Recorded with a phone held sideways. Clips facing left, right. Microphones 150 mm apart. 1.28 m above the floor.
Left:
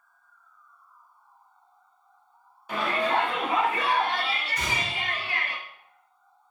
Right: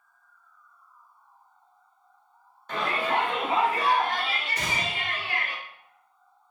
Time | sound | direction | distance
2.7 | a shout | 10° left (ahead or behind) | 0.6 m
4.5 | a gunshot | 70° right (ahead or behind) | 1.3 m